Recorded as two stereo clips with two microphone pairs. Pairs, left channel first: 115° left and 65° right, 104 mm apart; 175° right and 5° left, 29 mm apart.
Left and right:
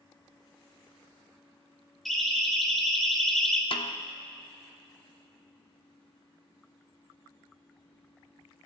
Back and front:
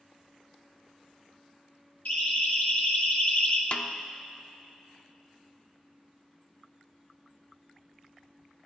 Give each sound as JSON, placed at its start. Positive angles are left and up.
{"t": 2.0, "sound": "a siren", "azimuth_deg": -160, "distance_m": 3.5}
{"t": 3.7, "sound": "a snare drum", "azimuth_deg": 145, "distance_m": 0.7}